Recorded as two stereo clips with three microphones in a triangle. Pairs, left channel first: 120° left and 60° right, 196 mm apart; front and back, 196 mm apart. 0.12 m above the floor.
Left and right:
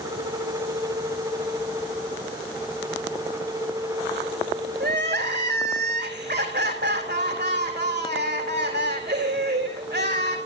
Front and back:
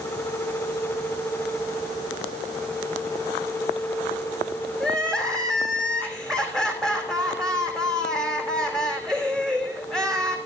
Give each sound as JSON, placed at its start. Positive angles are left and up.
{"t": 4.8, "sound": "crying", "azimuth_deg": -85, "distance_m": 3.5}